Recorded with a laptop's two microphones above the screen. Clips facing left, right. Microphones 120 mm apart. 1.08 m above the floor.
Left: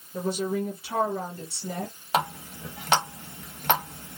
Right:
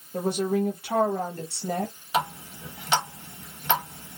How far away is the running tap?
About 0.8 m.